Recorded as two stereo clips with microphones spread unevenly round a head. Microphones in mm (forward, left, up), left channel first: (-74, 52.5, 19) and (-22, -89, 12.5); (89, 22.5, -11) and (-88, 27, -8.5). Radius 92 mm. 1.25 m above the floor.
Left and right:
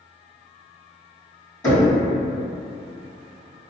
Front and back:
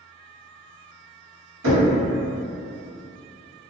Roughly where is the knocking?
Behind.